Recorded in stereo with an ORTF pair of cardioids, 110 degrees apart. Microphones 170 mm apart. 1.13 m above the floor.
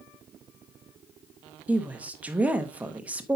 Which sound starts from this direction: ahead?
A woman speaking, at 1.7 s.